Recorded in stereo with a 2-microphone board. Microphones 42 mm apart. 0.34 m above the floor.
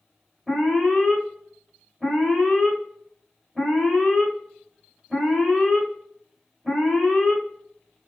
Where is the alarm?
5° right (ahead or behind), 2 m.